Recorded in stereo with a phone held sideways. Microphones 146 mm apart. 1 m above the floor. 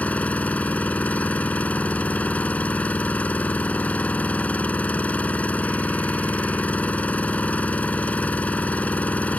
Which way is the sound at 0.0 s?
10° left (ahead or behind).